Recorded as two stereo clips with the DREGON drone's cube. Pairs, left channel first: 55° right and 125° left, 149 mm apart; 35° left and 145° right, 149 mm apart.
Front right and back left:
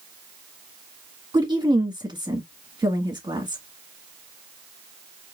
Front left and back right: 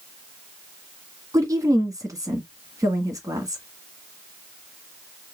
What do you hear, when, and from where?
1.3 s a woman speaking: 160° left, 1.5 m